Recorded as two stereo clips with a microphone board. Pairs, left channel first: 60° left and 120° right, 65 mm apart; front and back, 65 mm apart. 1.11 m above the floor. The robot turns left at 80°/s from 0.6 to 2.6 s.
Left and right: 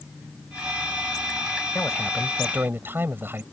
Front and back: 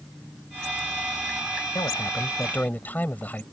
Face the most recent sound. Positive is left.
turn(degrees=-65)